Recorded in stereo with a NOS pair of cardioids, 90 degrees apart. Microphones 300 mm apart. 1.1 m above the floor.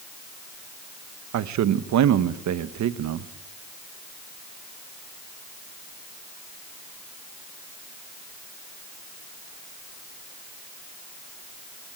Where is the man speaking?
65° right, 1.1 m.